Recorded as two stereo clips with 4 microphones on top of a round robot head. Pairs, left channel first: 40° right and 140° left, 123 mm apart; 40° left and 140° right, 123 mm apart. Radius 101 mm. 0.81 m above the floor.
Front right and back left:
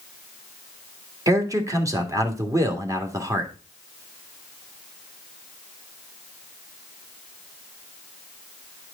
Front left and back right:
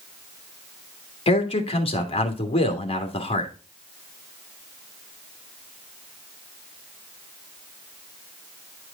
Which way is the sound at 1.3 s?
80° left.